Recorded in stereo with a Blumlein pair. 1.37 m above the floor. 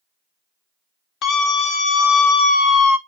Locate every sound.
1.2 s a scream: 35° left, 3 m